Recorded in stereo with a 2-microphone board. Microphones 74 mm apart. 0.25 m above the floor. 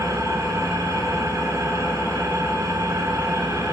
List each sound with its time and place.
0.0 s an engine running: 50° right (ahead or behind), 0.8 m